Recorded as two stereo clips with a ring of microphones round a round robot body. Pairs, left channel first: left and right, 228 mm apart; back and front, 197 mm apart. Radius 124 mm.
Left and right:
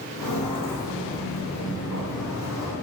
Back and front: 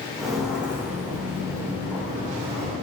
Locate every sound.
0.2 s footsteps: 90° left, 1.7 m; by 2.7 s 70° left, 4 m